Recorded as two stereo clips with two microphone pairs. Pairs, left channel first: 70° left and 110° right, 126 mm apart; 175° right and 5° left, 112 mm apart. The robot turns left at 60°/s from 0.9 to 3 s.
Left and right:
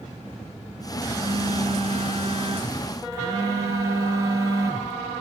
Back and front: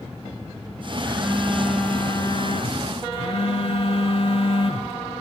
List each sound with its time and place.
1.0 s a phone buzzing: 45° right, 3 m; by 5.0 s 165° right, 3 m